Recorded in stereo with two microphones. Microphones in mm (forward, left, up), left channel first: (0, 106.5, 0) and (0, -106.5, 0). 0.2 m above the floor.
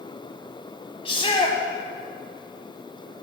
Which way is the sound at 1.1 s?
25° left (ahead or behind).